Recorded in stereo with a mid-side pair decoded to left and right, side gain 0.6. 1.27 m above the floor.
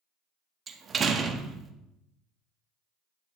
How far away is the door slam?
About 1.4 m.